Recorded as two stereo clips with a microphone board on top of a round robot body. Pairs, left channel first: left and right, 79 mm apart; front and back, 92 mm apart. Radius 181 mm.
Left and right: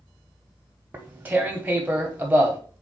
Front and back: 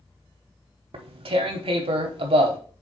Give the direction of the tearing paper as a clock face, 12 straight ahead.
5 o'clock.